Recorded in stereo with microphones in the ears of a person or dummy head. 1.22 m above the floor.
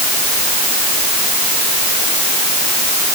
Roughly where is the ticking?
I don't hear ticking.